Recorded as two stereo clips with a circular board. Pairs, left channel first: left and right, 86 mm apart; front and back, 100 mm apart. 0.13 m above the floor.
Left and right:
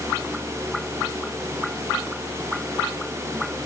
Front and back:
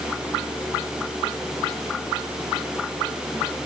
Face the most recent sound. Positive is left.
No sound to turn to.